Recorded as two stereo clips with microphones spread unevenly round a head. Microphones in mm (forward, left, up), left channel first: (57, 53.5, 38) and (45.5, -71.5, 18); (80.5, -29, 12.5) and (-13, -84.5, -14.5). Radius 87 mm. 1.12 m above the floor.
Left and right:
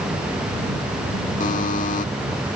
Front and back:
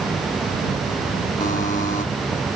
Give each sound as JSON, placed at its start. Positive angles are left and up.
{"t": 1.4, "sound": "a buzzer", "azimuth_deg": 70}